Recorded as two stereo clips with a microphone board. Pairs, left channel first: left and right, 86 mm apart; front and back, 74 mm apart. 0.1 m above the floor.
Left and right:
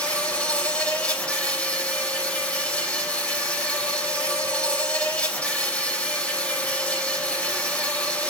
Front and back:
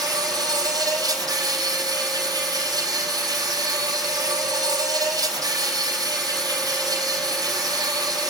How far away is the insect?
About 3.5 m.